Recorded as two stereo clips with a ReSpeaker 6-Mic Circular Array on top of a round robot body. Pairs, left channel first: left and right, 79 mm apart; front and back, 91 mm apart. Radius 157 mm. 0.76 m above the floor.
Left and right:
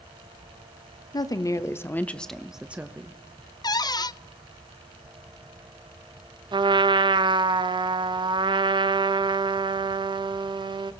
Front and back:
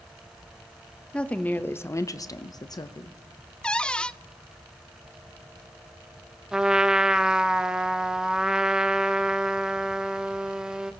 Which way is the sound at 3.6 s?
75° left.